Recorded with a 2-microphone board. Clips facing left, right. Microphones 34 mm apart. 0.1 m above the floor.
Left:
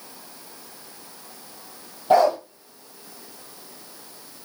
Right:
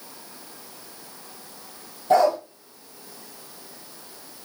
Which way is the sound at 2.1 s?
30° left (ahead or behind).